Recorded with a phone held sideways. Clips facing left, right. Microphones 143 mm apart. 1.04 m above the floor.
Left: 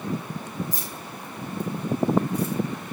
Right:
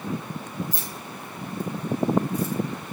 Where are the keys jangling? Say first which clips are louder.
Even; 50° left (ahead or behind), 3.5 m; by 2.5 s 60° left (ahead or behind), 3 m.